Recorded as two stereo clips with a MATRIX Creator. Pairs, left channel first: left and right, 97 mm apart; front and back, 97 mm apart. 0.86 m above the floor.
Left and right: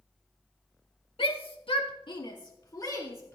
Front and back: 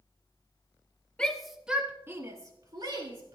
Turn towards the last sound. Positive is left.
turn(degrees=150)